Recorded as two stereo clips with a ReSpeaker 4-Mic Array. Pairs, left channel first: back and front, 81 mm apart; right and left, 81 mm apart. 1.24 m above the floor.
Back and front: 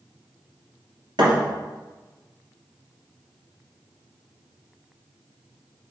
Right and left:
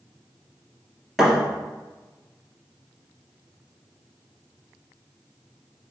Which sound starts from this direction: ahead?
A thud, at 1.2 s.